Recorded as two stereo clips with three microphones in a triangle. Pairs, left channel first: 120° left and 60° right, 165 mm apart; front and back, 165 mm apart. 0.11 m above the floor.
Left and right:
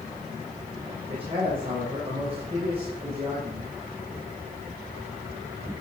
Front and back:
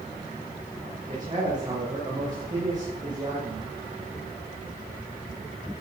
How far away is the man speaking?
About 8 m.